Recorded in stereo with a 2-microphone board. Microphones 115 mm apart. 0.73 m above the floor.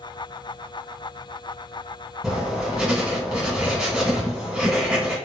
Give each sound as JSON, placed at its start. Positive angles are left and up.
{"t": 2.2, "sound": "writing", "side_deg": 0, "distance_m": 2.0}